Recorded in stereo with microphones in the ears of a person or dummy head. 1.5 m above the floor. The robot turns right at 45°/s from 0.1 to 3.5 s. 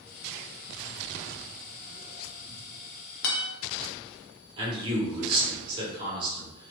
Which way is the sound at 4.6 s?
25° right (ahead or behind).